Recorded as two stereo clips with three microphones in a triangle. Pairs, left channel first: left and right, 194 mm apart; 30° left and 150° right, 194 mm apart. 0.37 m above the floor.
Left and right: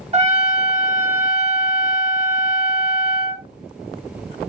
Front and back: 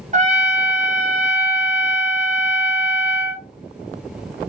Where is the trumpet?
125° right, 0.8 m.